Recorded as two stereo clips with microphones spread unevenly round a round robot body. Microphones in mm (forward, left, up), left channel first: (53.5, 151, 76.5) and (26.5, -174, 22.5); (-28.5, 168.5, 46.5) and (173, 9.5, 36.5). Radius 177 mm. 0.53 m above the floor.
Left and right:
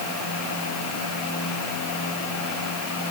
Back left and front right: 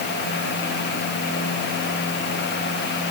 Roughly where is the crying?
No crying in this recording.